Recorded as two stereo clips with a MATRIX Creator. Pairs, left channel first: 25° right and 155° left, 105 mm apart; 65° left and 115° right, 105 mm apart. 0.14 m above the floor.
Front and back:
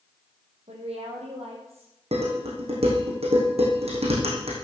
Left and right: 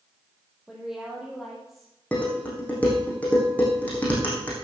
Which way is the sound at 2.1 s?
145° left.